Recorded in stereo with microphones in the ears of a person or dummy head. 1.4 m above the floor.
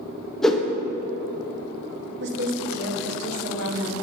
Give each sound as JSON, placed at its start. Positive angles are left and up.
{"t": 0.4, "sound": "a whoosh", "side_deg": 5, "distance_m": 0.7}
{"t": 2.2, "sound": "a woman speaking", "side_deg": -65, "distance_m": 1.3}